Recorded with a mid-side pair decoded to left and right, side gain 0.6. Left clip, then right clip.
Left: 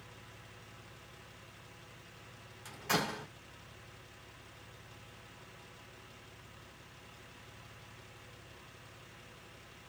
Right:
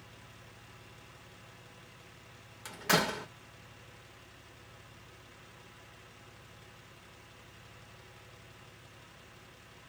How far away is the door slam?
About 1.5 m.